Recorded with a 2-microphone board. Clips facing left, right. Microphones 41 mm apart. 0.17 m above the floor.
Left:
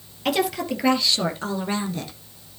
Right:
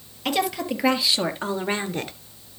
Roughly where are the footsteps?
I don't hear footsteps.